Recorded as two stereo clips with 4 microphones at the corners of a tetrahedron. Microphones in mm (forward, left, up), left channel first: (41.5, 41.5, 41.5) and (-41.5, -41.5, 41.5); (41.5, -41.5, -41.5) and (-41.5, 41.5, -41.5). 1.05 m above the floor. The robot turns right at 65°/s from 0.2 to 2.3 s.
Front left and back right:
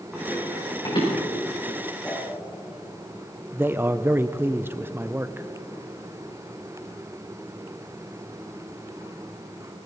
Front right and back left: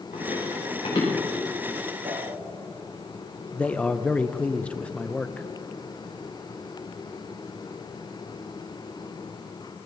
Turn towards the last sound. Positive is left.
turn(degrees=-100)